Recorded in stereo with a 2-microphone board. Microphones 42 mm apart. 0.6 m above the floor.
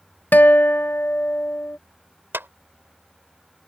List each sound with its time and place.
0.3 s a guitar: 50° left (ahead or behind)
2.3 s a clap: 60° right (ahead or behind)